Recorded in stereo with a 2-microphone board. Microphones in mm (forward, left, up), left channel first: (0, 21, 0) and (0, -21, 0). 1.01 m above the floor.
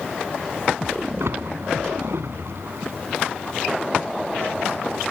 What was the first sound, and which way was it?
A splash, 75° right (ahead or behind).